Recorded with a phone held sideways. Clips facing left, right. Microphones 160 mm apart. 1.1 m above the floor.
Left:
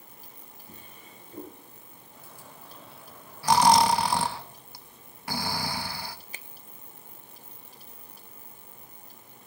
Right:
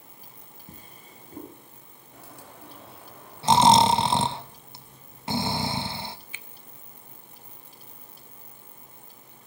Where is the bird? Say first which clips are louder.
Right 4 dB; 70° right (ahead or behind), 3.5 m.